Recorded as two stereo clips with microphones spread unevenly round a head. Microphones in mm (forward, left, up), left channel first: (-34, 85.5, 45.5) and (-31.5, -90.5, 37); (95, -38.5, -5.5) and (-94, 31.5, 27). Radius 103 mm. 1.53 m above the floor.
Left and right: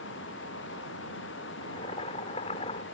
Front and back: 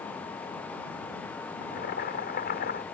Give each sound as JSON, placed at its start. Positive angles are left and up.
{"t": 1.6, "sound": "boiling", "azimuth_deg": 30}